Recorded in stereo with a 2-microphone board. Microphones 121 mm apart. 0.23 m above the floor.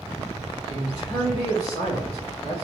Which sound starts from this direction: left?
A man speaking, at 0.7 s.